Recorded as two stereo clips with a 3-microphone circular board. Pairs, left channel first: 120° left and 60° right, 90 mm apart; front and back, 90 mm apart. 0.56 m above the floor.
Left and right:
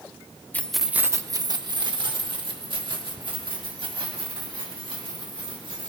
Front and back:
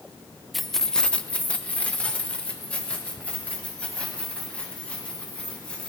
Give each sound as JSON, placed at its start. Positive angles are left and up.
{"t": 0.5, "sound": "keys jangling", "azimuth_deg": 90, "distance_m": 0.5}